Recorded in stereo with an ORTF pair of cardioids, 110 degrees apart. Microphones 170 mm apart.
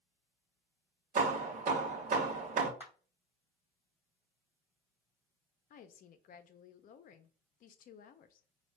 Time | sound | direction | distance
1.1 | hammering | 45° right | 1.0 m
2.8 | a clap | 15° right | 1.7 m
5.7 | a woman speaking | 55° left | 0.7 m